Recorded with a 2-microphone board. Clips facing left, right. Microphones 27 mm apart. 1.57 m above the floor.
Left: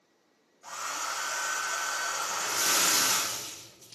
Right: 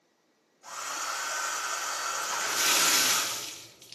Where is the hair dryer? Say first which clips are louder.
Even; 5° right (ahead or behind), 1.1 m.